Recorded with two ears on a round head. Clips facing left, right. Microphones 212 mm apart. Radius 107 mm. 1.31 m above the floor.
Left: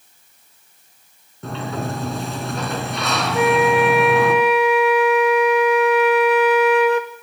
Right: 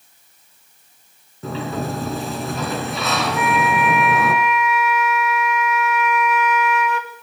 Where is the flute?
30° left (ahead or behind), 2 m.